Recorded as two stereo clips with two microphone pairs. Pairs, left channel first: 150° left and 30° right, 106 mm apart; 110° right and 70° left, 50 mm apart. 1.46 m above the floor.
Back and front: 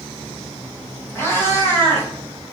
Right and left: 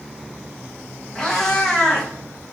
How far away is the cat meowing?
About 1.0 m.